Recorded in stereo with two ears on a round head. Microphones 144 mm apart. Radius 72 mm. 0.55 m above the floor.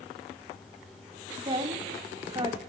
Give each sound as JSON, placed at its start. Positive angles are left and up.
{"t": 1.4, "sound": "a woman speaking", "side_deg": -30, "distance_m": 0.9}